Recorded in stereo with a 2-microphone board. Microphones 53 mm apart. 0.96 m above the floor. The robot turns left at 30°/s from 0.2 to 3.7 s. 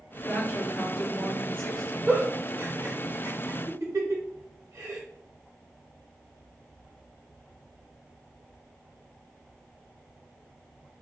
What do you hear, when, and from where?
0.3 s a woman speaking: 50° left, 1.6 m; by 2.0 s straight ahead, 1.6 m
2.1 s a giggle: 15° right (ahead or behind), 1.5 m; by 5.0 s 65° right (ahead or behind), 1.5 m